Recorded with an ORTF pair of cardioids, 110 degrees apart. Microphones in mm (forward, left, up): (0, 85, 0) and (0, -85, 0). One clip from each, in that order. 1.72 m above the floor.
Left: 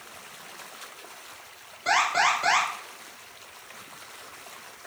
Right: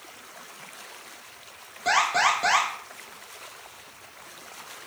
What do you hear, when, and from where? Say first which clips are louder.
1.9 s an alarm: right 1 dB; 40° right, 5 m